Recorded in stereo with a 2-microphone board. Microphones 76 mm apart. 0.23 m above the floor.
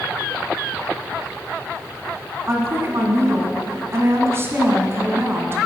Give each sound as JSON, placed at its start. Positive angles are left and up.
{"t": 2.5, "sound": "a woman speaking", "side_deg": -35, "distance_m": 2.0}